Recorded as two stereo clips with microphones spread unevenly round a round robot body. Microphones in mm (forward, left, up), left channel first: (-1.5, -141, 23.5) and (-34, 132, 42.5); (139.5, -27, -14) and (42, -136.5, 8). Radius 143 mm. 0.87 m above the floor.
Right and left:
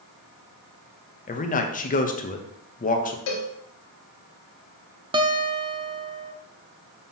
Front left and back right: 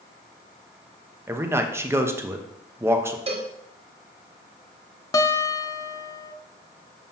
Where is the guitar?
30° left, 0.6 m.